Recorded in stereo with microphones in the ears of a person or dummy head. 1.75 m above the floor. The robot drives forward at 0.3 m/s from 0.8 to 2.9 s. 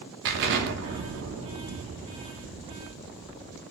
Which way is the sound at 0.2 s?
60° right (ahead or behind).